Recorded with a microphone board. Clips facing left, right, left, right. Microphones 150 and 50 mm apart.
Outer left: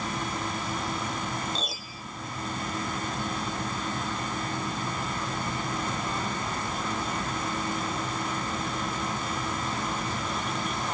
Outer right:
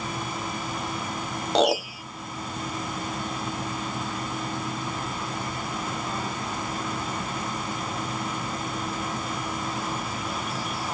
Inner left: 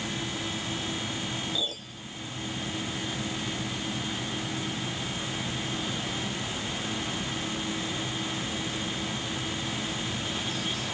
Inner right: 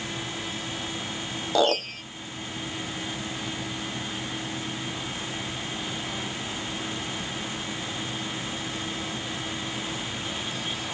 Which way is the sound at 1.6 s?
75° right (ahead or behind).